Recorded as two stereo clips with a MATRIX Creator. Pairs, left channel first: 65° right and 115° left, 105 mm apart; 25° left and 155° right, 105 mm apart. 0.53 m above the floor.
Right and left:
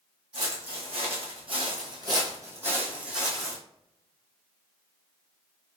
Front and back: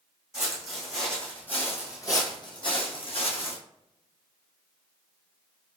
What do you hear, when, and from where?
0.3 s footsteps: 120° left, 1.4 m; by 3.6 s 20° left, 1.2 m